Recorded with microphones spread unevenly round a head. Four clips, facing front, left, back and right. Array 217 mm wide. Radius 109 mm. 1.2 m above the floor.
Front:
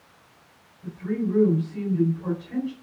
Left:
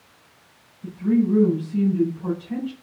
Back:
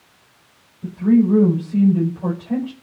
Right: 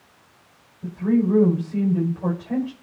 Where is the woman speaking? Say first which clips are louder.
Even, back 12 dB; 145° right, 6.5 m.